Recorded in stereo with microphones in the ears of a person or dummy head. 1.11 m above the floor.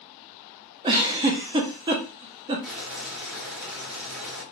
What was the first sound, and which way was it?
A giggle, 25° right (ahead or behind).